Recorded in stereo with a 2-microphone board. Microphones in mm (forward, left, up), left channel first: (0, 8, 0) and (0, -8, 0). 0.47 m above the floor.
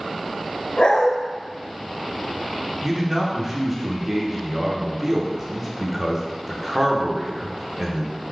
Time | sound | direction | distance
0.8 | a dog barking | 75° left (ahead or behind) | 0.6 m
2.8 | a man speaking | 25° right (ahead or behind) | 0.8 m